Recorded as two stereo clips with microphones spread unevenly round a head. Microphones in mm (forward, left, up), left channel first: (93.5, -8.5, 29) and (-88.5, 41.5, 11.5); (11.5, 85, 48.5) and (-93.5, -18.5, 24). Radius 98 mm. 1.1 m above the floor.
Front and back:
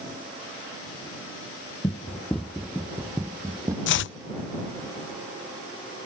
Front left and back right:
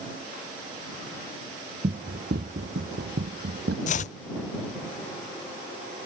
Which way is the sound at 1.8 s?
90° right.